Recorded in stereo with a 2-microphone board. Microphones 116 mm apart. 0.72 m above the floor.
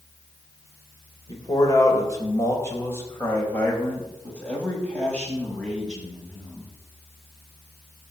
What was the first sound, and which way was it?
A man speaking, 35° left (ahead or behind).